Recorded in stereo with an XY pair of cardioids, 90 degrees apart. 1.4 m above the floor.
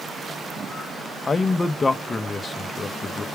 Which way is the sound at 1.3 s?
35° left.